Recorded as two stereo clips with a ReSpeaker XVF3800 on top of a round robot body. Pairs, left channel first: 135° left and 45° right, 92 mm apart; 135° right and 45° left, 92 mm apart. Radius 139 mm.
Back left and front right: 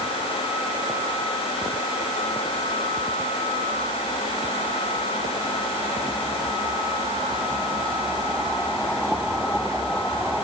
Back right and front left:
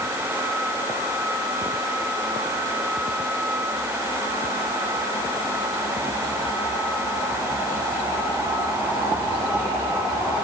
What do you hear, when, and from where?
Only background noise.